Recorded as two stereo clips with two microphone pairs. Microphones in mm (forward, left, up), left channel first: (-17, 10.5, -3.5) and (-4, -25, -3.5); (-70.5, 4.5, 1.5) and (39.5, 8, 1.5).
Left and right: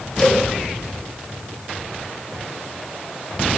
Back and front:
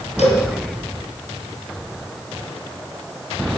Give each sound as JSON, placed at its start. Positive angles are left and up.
{"t": 0.2, "sound": "a cowbell", "azimuth_deg": -175, "distance_m": 4.5}